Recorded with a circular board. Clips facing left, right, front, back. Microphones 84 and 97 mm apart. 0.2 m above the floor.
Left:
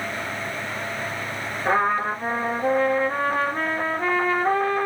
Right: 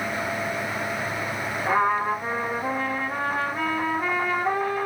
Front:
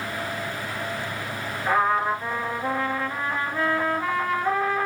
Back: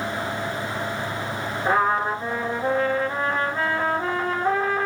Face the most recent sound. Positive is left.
turn(degrees=125)